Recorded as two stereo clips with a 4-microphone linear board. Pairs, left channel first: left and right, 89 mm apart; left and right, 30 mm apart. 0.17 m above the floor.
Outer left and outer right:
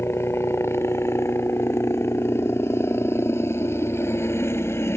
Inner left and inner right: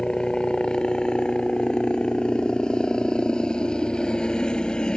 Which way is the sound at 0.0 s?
30° left (ahead or behind).